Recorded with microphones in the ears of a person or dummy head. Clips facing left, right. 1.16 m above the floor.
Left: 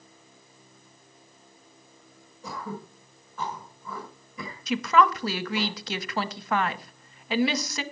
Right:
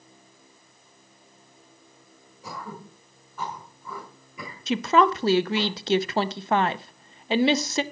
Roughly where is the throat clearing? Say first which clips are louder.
Left 2 dB; centre.